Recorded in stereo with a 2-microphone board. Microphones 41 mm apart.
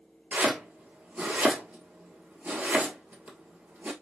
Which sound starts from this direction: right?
Chopping, at 0.3 s.